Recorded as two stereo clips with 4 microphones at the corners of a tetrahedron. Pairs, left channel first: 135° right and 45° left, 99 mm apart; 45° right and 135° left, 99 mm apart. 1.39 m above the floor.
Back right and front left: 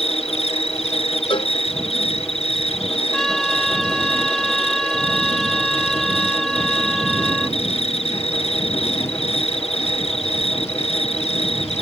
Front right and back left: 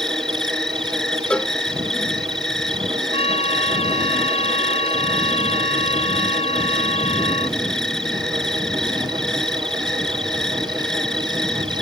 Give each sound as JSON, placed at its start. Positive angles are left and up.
{"t": 0.0, "sound": "an insect", "azimuth_deg": -130}
{"t": 1.3, "sound": "a cowbell", "azimuth_deg": -125}
{"t": 3.1, "sound": "a trumpet", "azimuth_deg": -45}